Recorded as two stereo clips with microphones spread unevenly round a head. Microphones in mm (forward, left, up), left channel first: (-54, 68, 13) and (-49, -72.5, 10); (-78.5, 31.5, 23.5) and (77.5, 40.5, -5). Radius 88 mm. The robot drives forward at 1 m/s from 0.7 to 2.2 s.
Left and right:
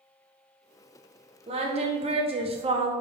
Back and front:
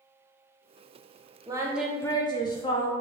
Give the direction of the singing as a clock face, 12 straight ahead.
2 o'clock.